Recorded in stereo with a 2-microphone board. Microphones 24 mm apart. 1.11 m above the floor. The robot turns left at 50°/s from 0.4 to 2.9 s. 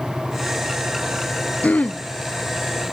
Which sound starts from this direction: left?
Throat clearing, at 1.6 s.